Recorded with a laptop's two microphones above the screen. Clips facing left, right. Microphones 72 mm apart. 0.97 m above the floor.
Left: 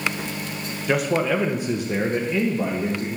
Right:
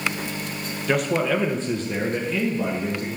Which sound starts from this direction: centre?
A man speaking, at 0.9 s.